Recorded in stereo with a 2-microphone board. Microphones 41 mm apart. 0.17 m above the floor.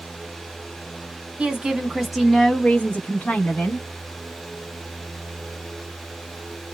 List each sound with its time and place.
1.4 s a woman speaking: 30° right (ahead or behind), 1.1 m; by 3.9 s 50° left (ahead or behind), 1.5 m